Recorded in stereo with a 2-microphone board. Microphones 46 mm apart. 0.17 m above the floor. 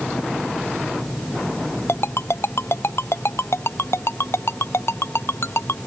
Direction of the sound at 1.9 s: 65° left (ahead or behind).